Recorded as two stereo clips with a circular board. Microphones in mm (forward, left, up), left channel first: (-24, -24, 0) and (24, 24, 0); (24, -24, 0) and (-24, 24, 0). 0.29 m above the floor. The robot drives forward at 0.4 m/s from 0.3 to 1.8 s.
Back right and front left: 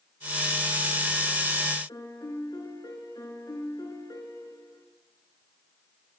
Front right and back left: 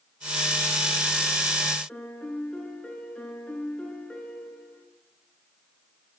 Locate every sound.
1.9 s a piano: 120° right, 3 m